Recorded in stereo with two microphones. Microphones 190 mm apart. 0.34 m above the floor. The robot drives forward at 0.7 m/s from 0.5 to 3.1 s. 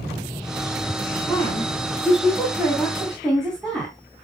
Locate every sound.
1.2 s a woman speaking: 5° left (ahead or behind), 4.5 m